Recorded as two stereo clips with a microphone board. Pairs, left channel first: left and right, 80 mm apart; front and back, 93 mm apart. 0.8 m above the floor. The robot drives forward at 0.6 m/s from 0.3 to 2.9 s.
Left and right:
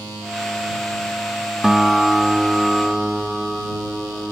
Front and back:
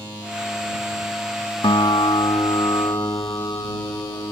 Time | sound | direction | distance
1.6 | a guitar | 5° right | ?